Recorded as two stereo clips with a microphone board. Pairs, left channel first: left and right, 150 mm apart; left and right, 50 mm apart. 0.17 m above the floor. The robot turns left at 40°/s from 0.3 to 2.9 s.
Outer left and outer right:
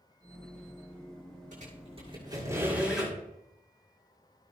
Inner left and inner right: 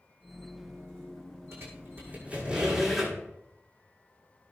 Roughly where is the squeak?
Right.